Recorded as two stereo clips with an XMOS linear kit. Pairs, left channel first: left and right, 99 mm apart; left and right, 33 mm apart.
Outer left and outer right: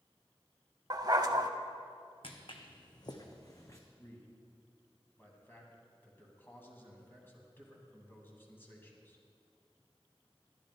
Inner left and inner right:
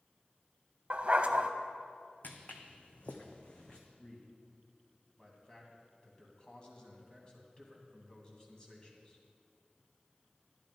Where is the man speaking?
20° left (ahead or behind), 2.5 m.